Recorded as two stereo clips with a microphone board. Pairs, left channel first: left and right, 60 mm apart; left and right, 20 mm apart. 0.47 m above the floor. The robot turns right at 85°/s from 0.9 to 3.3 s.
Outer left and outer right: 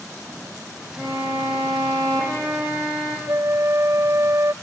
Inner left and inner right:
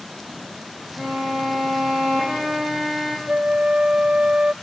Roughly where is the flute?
Right.